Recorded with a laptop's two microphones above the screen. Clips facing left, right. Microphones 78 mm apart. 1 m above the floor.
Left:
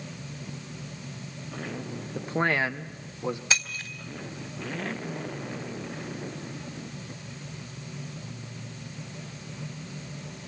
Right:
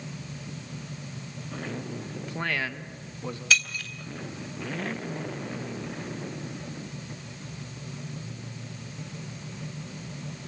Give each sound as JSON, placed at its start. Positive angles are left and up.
{"t": 2.1, "sound": "a man speaking", "side_deg": 40, "distance_m": 0.7}
{"t": 3.5, "sound": "breaking glass", "side_deg": 20, "distance_m": 3.0}